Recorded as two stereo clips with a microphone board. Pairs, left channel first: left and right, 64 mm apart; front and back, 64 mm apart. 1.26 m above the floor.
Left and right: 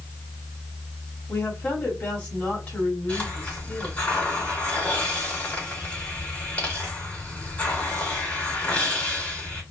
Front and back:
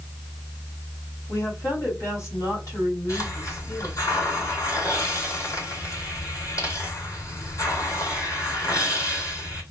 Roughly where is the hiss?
Ahead left.